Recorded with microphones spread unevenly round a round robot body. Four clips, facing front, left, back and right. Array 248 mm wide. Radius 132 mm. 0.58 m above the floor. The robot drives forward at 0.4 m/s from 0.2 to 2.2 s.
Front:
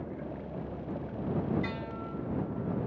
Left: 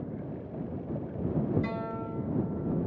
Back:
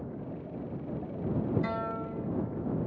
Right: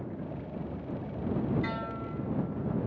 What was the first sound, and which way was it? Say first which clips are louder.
A guitar: left 1 dB, back 4 dB; 175° right.